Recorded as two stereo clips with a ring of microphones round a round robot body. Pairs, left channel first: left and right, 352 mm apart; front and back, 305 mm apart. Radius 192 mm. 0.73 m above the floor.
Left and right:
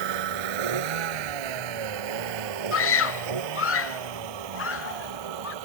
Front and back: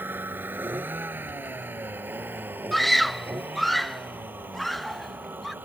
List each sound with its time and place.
0.0 s a vehicle: 95° right
2.7 s a scream: 90° left